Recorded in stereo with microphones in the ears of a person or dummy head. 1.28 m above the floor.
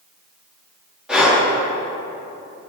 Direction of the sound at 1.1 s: Centre (ahead or behind).